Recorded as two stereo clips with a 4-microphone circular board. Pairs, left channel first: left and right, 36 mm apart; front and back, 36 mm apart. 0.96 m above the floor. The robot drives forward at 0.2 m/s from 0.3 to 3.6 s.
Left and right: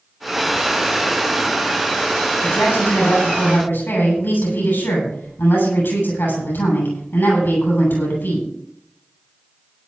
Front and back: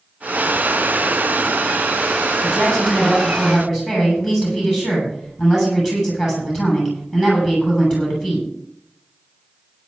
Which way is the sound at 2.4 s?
95° left.